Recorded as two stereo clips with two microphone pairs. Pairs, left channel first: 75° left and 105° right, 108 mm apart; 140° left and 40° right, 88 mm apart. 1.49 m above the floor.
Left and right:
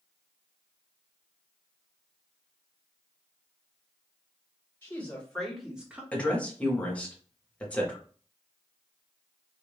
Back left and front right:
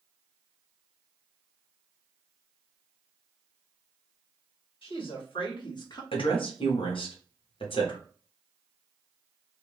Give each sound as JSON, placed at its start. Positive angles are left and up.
{"t": 4.8, "sound": "a woman speaking", "azimuth_deg": 145, "distance_m": 1.6}
{"t": 6.1, "sound": "a woman speaking", "azimuth_deg": 150, "distance_m": 1.1}